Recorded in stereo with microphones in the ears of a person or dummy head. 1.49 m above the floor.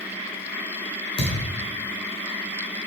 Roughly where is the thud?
Left.